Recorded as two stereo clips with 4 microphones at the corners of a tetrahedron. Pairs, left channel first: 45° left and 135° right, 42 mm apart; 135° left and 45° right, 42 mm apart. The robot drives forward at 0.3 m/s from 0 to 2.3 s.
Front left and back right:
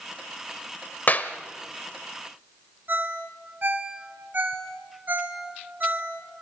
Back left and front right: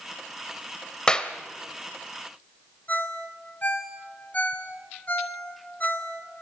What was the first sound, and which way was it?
A clap, 70° left.